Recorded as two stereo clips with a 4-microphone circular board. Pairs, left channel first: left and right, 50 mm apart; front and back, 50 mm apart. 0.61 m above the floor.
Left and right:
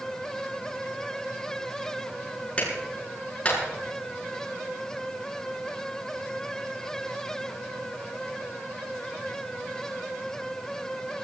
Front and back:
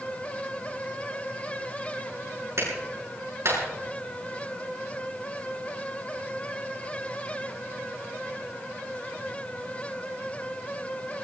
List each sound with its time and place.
2.6 s a clap: 155° left, 7 m